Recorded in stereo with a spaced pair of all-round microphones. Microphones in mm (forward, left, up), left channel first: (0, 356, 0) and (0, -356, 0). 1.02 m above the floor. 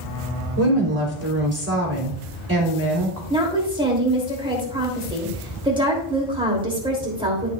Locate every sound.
0.6 s a woman speaking: 20° right (ahead or behind), 3.5 m
3.3 s a woman speaking: 5° right (ahead or behind), 3 m